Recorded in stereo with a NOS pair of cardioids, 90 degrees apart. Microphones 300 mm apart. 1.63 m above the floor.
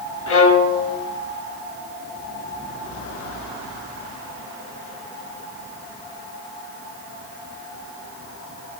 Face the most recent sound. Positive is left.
turn(degrees=45)